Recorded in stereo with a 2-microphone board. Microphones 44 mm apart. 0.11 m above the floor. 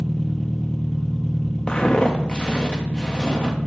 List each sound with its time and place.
0.0 s an engine running: 20° left (ahead or behind), 0.7 m
1.7 s footsteps: 25° left (ahead or behind), 1.1 m; by 3.6 s 20° left (ahead or behind), 2.5 m